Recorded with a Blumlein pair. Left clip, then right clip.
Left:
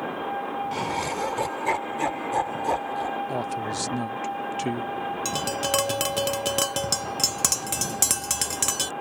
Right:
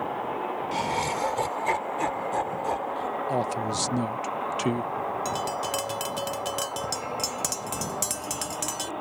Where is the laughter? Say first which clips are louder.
Right 3 dB; 5° right; by 3.2 s 20° left.